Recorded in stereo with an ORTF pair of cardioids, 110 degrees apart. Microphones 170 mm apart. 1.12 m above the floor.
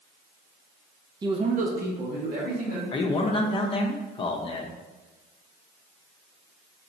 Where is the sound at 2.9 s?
30° left, 0.7 m.